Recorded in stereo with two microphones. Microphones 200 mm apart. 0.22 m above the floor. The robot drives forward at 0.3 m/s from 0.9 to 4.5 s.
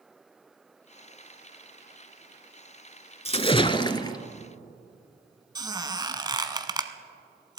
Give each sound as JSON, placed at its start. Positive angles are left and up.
{"t": 3.2, "sound": "a splash", "side_deg": 30, "distance_m": 0.5}
{"t": 5.5, "sound": "a squeak", "side_deg": -20, "distance_m": 0.8}